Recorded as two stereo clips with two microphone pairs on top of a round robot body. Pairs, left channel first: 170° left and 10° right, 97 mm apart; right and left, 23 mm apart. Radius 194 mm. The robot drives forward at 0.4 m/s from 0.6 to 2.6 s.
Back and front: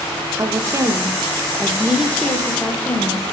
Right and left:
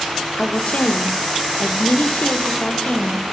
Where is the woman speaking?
60° right, 1.0 m; by 3.2 s 115° right, 1.0 m.